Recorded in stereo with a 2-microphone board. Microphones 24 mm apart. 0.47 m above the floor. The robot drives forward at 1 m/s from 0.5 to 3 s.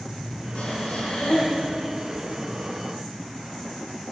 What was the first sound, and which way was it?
Breathing, 65° left (ahead or behind).